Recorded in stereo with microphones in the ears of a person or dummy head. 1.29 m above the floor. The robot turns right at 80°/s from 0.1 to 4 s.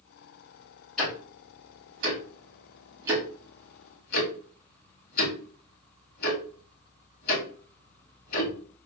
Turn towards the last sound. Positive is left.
turn(degrees=60)  # may be behind; listen again after turning